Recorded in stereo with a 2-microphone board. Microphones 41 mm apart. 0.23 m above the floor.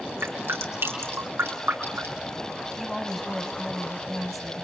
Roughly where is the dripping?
Right.